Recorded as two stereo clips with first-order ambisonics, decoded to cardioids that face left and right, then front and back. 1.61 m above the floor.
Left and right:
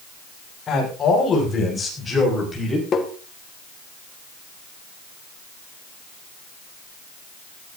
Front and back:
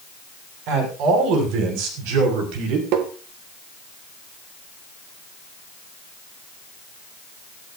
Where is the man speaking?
155° left, 6.5 m; by 2.8 s 175° left, 5 m.